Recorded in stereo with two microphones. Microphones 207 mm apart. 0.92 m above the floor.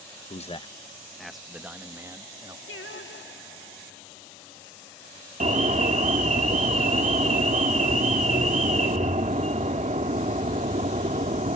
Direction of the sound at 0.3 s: 35° left (ahead or behind).